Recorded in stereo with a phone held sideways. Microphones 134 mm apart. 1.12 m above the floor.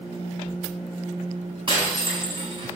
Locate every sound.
1.7 s breaking glass: 40° right (ahead or behind), 4.5 m